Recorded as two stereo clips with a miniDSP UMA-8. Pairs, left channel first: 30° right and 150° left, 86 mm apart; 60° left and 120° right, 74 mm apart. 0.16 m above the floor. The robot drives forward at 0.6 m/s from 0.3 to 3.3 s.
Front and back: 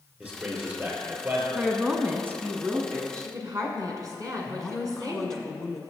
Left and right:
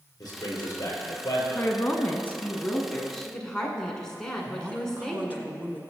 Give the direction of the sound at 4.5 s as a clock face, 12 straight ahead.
3 o'clock.